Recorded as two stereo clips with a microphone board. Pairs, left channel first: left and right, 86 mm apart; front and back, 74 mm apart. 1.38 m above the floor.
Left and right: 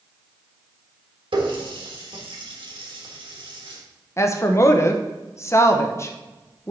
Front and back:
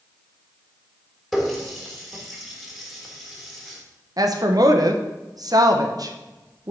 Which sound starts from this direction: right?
A running tap, at 1.3 s.